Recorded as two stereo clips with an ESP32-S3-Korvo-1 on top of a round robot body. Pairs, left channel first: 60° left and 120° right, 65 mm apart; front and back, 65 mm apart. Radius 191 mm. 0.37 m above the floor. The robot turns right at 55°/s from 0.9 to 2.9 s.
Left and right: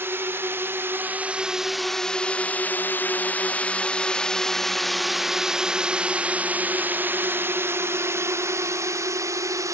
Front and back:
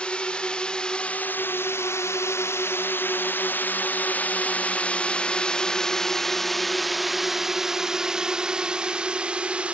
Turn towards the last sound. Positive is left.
turn(degrees=-110)